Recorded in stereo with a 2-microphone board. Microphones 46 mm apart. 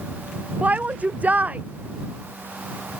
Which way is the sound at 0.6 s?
30° right (ahead or behind).